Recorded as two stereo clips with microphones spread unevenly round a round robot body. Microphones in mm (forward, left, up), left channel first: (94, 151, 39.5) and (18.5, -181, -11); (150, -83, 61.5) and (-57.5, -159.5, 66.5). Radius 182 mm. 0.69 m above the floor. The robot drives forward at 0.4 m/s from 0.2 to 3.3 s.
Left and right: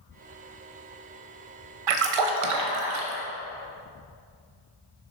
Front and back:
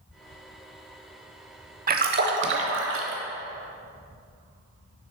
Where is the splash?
110° right, 0.7 m; by 3.2 s 145° right, 1.0 m.